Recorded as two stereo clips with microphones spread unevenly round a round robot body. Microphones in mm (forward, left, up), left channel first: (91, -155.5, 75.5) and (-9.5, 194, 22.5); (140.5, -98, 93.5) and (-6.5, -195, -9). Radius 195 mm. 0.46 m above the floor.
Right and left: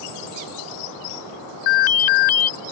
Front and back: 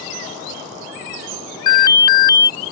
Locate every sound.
1.7 s an alarm: 50° right